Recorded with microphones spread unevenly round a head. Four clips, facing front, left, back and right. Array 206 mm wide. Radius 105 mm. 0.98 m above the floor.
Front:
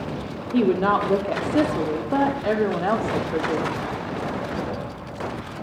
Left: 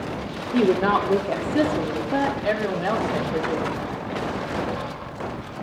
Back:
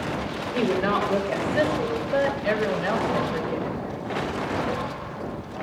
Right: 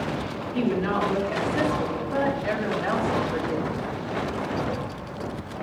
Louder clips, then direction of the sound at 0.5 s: Left 6 dB, front 4 dB; 45° left.